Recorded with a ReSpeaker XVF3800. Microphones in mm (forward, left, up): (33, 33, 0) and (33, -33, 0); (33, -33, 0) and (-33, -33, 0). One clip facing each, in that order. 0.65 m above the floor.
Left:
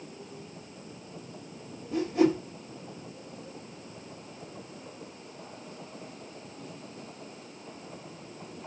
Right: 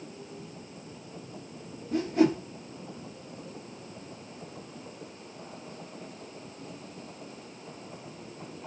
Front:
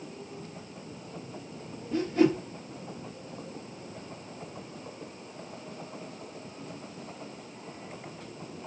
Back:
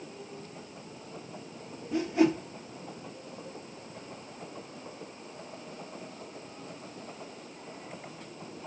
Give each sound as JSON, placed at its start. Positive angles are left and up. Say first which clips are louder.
{"t": 1.9, "sound": "a whoosh", "louder": "even, front 1 dB", "azimuth_deg": -105, "distance_m": 1.6}